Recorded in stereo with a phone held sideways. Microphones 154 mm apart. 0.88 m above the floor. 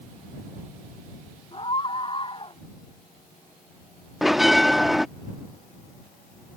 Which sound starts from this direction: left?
A scream, at 1.5 s.